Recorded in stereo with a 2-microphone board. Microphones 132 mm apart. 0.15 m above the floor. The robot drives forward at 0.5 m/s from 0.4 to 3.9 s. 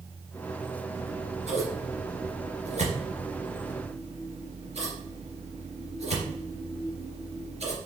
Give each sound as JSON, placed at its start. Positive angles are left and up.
{"t": 0.9, "sound": "scissors", "side_deg": -55, "distance_m": 2.5}